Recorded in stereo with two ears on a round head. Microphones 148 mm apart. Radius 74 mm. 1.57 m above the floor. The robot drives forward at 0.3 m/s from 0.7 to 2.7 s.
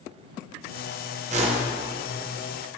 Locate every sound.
1.3 s a whoosh: 40° right (ahead or behind), 0.9 m